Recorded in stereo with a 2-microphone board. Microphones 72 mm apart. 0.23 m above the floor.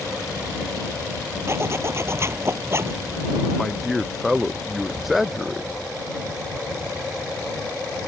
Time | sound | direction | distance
1.5 | a zipper | 35° right (ahead or behind) | ?
3.6 | a man speaking | centre (ahead or behind) | ?